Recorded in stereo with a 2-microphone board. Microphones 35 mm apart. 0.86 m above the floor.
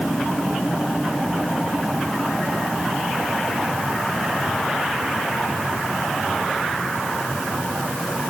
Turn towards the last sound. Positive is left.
No sound to turn to.